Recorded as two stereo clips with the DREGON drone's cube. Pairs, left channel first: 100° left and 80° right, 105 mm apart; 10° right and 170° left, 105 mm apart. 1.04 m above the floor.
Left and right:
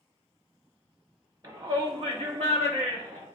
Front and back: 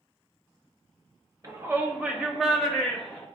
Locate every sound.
1.4 s a shout: 130° right, 1.6 m; by 3.3 s 90° right, 2.5 m